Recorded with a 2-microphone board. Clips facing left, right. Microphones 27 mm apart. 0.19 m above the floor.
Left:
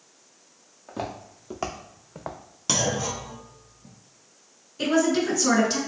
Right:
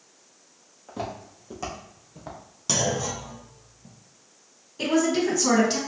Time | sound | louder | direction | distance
0.9 | footsteps | even | 15° left (ahead or behind) | 1.0 m
2.7 | a clunk | even | 20° left (ahead or behind) | 0.6 m
4.8 | a woman speaking | left 1 dB | 15° right (ahead or behind) | 1.5 m